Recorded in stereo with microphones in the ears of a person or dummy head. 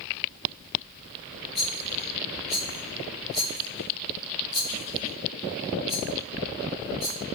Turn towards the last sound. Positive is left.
turn(degrees=5)  # may be behind; listen again after turning